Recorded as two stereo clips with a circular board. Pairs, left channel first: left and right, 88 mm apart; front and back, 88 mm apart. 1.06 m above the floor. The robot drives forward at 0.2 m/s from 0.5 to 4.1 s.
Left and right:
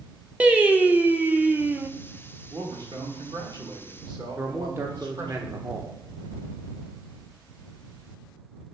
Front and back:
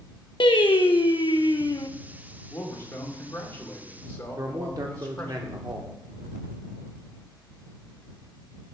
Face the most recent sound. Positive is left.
turn(degrees=-145)